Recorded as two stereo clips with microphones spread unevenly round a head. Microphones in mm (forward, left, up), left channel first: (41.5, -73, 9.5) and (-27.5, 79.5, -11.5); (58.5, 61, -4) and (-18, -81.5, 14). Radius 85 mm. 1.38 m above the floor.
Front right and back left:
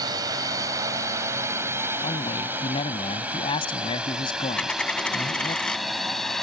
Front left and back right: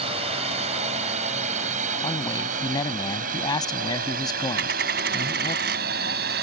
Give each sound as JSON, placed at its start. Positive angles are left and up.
{"t": 0.0, "sound": "a drone", "azimuth_deg": -175}
{"t": 2.0, "sound": "a man speaking", "azimuth_deg": -5}
{"t": 4.6, "sound": "a dropped coin", "azimuth_deg": -150}